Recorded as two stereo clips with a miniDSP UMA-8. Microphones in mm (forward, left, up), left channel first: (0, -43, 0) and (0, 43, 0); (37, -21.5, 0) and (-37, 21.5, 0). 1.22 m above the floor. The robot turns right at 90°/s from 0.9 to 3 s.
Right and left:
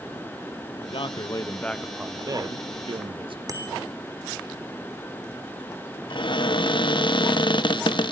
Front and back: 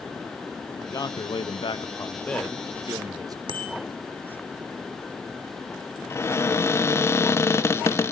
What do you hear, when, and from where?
0.8 s a man speaking: 80° right, 1.0 m; by 3.4 s 105° left, 1.0 m
3.5 s a bicycle bell: 140° left, 2.5 m
6.1 s a cupboard door: 85° right, 0.9 m